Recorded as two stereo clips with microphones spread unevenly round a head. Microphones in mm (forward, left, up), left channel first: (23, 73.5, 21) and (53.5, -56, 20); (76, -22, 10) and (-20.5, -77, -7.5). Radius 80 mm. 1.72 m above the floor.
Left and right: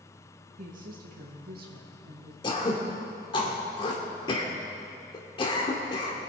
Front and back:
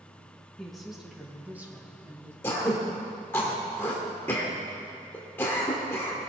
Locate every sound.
0.6 s a woman speaking: 55° right, 2 m; by 2.3 s 85° right, 2.5 m
2.4 s throat clearing: 75° left, 1.6 m